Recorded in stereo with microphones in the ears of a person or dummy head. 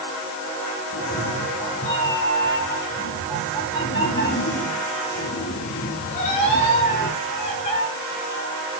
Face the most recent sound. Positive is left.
turn(degrees=50)  # may be behind; listen again after turning